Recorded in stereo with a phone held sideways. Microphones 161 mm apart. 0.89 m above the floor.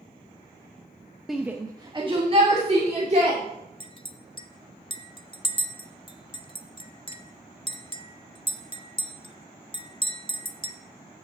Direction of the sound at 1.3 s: Centre (ahead or behind).